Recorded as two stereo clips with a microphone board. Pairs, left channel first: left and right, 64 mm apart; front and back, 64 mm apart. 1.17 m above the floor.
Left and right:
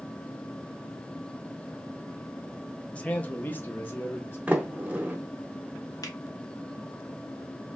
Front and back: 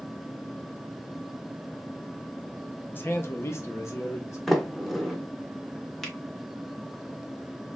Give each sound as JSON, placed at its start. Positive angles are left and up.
{"t": 2.9, "sound": "a man speaking", "azimuth_deg": 30, "distance_m": 0.7}
{"t": 4.5, "sound": "a sliding door", "azimuth_deg": -85, "distance_m": 0.8}
{"t": 6.0, "sound": "a finger snap", "azimuth_deg": 85, "distance_m": 1.0}